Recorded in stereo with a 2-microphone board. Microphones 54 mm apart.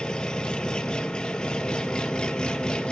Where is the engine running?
15° left (ahead or behind), 0.9 m.